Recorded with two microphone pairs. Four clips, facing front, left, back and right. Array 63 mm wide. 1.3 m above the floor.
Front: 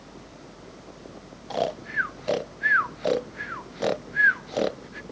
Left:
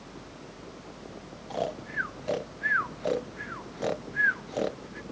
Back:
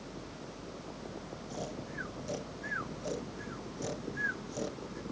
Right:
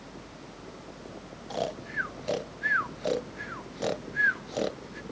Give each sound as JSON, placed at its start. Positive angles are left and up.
{"t": 1.5, "sound": "snoring", "azimuth_deg": 10}